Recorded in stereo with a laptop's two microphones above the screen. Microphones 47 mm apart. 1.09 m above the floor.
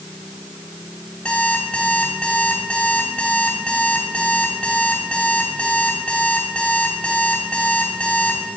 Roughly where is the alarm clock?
Left.